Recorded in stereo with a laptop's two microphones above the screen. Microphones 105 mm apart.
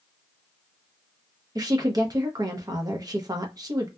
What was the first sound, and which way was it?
A woman speaking, 35° right (ahead or behind).